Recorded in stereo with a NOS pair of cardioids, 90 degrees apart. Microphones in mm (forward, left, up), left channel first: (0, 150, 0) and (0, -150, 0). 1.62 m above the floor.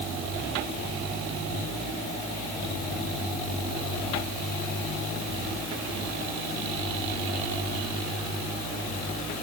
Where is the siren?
I don't hear a siren.